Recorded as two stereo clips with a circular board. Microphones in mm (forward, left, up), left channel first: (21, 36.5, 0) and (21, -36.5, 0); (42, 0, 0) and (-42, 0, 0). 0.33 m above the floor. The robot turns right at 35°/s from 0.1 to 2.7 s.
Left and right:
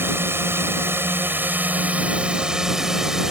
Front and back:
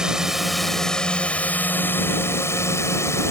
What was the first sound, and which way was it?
A drone, 105° right.